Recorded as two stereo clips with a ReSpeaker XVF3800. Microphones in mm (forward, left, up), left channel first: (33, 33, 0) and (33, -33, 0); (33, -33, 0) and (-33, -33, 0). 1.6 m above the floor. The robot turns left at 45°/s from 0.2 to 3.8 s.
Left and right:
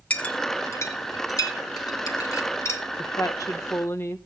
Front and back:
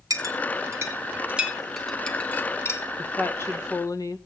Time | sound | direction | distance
0.1 | a clink | 160° left | 1.8 m
3.0 | a woman speaking | 70° left | 1.5 m